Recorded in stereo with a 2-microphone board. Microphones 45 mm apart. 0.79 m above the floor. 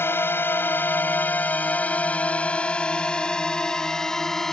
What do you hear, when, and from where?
0.0 s a drone: 60° left (ahead or behind); by 4.5 s 10° left (ahead or behind)